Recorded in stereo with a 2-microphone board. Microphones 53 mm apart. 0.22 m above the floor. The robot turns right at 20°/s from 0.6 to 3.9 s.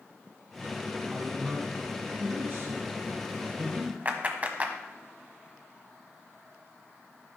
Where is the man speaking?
120° right, 2 m; by 4.0 s 65° right, 2 m.